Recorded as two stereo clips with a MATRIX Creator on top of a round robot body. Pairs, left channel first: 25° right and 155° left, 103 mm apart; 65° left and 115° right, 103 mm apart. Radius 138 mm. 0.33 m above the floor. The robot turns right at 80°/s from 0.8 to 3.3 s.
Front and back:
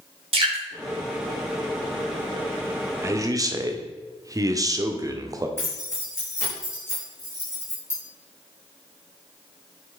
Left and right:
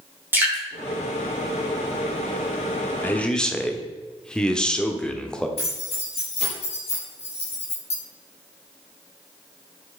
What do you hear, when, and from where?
0.3 s dripping: 175° left, 4.5 m
3.0 s a man speaking: 120° left, 1.7 m; by 5.5 s 145° left, 1.7 m
5.6 s keys jangling: 45° left, 5.5 m